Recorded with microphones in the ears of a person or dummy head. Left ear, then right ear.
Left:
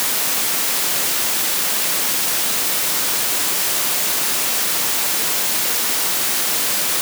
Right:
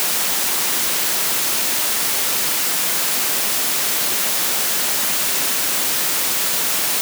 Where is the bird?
No bird in this recording.